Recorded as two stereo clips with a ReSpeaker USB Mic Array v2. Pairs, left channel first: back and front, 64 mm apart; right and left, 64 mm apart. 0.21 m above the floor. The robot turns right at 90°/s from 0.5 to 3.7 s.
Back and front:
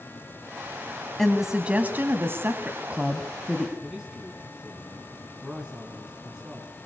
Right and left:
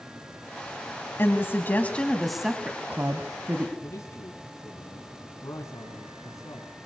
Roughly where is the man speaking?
Right.